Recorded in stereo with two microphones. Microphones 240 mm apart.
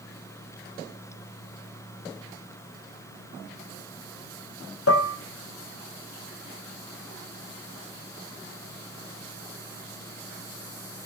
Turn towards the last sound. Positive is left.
turn(degrees=70)  # may be behind; listen again after turning